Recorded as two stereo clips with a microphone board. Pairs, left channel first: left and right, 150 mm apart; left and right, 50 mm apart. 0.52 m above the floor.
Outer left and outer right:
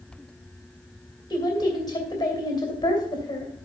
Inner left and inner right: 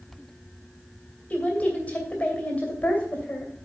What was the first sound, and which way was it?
A woman speaking, 30° left (ahead or behind).